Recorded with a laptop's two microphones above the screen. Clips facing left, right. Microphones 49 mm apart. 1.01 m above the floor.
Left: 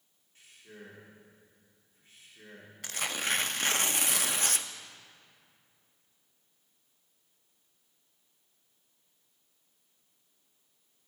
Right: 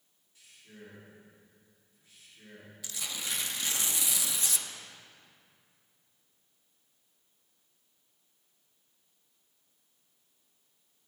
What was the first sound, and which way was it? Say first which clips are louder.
A man speaking: left 2 dB; 40° left (ahead or behind).